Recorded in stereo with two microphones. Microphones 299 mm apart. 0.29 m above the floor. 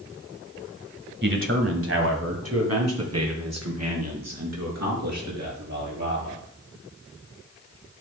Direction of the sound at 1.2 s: 40° right (ahead or behind).